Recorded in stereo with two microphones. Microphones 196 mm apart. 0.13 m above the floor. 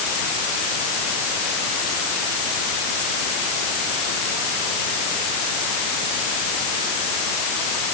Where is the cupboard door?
No cupboard door in this recording.